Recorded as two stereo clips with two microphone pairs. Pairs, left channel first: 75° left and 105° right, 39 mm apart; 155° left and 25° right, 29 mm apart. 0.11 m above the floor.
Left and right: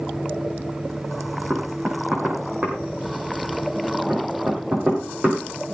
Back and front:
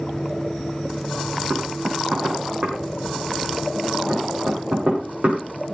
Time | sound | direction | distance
1.5 | knocking | 55° right | 5.5 m